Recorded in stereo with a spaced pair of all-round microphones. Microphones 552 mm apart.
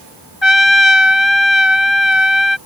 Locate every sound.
0.4 s a trumpet: 55° left (ahead or behind)